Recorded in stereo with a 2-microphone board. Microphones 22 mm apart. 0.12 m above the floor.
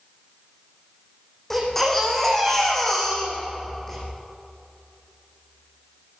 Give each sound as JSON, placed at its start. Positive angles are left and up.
{"t": 1.5, "sound": "a baby crying", "side_deg": 15, "distance_m": 6.0}